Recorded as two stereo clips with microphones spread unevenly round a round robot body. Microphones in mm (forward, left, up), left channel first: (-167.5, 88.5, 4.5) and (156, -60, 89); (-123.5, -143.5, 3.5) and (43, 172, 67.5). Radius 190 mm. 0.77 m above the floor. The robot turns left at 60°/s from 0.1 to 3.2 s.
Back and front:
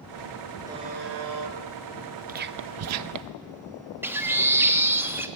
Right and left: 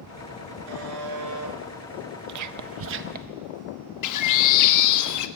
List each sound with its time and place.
0.7 s a buzzer: 55° left, 2.5 m; by 1.6 s straight ahead, 2.5 m
2.3 s whispering: 50° left, 0.6 m; by 3.4 s 5° right, 0.6 m
4.0 s a bird: 115° right, 1.2 m